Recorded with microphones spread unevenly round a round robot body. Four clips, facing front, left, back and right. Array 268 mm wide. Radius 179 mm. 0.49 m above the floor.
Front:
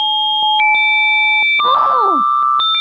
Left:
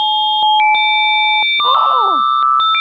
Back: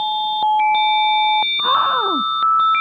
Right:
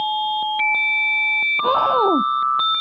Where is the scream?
105° right.